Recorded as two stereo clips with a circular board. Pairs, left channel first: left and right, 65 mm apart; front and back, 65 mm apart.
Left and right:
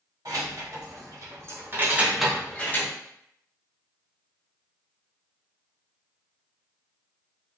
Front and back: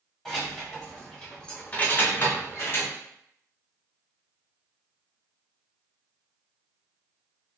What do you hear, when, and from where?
0.2 s keys jangling: 90° right, 1.3 m; by 2.9 s 45° left, 0.7 m